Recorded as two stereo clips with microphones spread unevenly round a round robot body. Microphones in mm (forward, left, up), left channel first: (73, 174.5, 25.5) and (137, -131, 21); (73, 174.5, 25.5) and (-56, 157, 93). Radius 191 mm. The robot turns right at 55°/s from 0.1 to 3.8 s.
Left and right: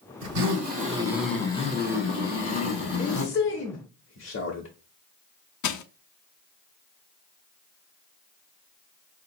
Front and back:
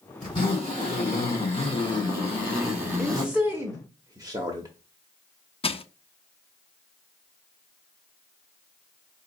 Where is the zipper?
45° right, 3 m; by 3.3 s 125° left, 3 m.